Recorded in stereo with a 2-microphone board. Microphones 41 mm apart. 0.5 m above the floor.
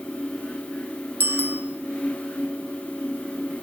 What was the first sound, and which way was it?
A bicycle bell, 50° right (ahead or behind).